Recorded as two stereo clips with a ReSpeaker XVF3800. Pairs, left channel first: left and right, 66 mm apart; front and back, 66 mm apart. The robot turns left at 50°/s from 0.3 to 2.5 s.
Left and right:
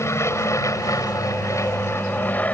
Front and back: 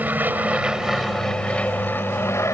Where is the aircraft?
120° left; by 2.5 s 30° left.